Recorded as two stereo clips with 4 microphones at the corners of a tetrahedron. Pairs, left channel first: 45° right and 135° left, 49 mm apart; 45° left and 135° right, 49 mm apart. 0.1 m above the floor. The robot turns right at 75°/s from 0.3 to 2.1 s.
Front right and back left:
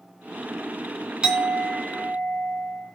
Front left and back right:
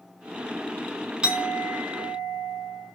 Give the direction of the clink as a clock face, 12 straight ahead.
6 o'clock.